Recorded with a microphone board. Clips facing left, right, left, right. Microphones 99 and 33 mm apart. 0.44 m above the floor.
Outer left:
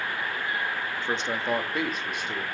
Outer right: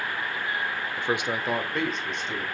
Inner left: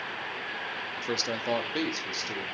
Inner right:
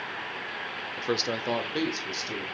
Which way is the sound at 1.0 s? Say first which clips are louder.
Outer right 4 dB, inner right 4 dB; 20° right (ahead or behind).